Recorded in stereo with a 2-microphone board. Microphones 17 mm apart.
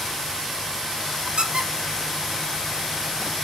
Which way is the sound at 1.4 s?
55° right (ahead or behind).